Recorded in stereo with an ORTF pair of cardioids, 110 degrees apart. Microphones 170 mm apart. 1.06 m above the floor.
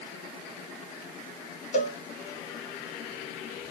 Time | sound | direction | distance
1.7 | a cowbell | 45° left | 1.0 m